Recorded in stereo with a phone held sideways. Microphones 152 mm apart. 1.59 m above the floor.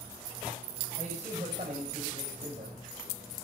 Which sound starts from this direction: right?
A man speaking, at 1.0 s.